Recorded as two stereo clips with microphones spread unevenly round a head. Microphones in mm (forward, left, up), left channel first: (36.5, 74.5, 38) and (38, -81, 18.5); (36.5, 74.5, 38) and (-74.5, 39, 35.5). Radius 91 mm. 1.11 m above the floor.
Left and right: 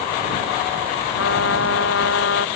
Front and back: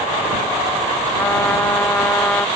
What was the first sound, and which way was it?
A trumpet, 90° left.